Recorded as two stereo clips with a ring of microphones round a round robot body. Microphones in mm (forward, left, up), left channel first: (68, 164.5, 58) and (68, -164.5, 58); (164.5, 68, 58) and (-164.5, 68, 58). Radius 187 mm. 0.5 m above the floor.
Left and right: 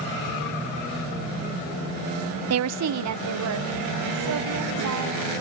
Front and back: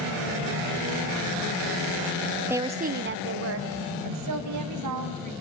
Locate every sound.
2.5 s a woman speaking: 95° right, 0.9 m; by 5.3 s 140° right, 4 m